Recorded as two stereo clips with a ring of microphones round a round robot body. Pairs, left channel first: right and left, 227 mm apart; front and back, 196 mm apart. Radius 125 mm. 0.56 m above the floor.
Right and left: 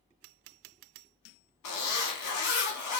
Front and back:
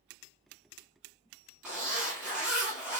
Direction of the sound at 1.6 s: 95° right.